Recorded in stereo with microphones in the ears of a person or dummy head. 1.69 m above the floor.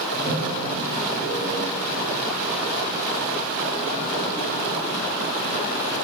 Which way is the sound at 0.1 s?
40° right (ahead or behind).